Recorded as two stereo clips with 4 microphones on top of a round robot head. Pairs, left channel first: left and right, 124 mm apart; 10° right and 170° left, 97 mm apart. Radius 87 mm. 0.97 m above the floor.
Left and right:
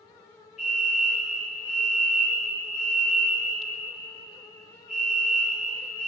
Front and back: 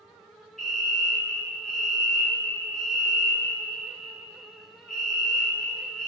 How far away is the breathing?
No breathing in this recording.